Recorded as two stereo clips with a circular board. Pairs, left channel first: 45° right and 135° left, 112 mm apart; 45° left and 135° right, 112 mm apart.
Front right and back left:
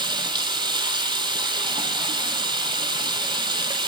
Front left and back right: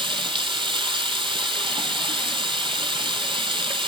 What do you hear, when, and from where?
0.0 s running water: 175° right, 0.7 m